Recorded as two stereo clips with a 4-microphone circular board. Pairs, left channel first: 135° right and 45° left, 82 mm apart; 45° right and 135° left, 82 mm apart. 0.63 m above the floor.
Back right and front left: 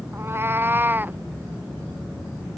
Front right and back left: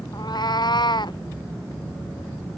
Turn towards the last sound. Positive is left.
turn(degrees=-20)